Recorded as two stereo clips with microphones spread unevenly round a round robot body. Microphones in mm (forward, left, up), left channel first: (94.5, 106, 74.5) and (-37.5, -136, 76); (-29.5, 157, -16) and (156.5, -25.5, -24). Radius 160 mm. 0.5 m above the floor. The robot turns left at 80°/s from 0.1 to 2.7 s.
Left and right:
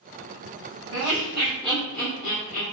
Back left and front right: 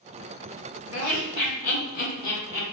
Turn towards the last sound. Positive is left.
turn(degrees=85)